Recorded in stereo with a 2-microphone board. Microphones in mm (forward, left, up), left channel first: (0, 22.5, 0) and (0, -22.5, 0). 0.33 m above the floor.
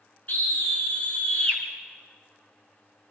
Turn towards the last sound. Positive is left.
turn(degrees=30)  # may be behind; listen again after turning